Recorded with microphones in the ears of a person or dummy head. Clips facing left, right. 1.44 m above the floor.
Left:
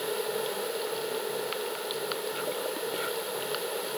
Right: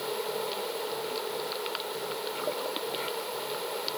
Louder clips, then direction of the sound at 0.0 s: Left 2 dB; 10° left (ahead or behind).